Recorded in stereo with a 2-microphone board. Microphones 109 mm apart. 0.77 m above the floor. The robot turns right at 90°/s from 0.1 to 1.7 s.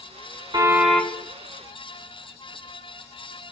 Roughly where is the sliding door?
No sliding door in this recording.